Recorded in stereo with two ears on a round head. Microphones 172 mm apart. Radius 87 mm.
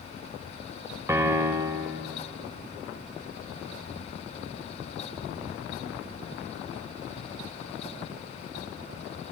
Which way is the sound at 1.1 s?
15° right (ahead or behind).